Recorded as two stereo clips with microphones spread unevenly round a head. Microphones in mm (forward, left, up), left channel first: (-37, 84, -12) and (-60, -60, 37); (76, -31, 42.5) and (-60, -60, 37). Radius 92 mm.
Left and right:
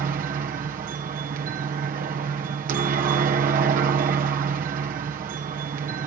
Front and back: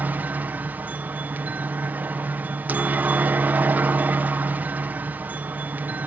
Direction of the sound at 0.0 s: 100° right.